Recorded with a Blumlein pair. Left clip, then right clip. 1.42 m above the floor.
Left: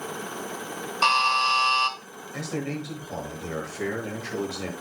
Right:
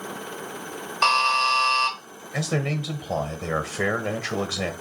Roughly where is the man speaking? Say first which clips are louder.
Right 5 dB; ahead right.